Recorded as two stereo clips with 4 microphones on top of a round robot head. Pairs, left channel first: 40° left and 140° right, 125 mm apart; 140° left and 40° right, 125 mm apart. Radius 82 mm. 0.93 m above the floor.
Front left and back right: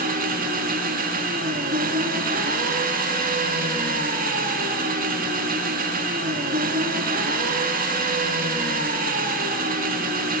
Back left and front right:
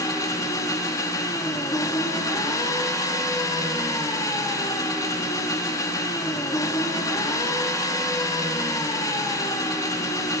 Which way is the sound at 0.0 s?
155° right.